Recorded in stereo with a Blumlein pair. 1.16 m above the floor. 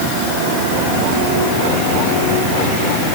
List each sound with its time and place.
Only background noise.